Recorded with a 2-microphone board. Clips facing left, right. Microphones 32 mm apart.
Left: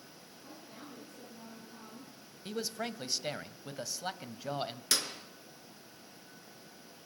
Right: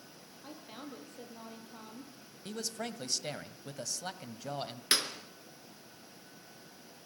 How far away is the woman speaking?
About 8 m.